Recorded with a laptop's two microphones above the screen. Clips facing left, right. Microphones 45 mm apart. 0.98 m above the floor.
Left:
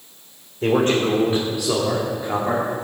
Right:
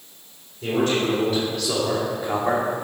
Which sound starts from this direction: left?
A man speaking, at 0.6 s.